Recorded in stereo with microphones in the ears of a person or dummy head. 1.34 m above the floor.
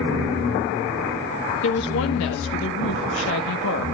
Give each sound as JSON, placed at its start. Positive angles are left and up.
{"t": 1.6, "sound": "a woman speaking", "side_deg": 75, "distance_m": 2.0}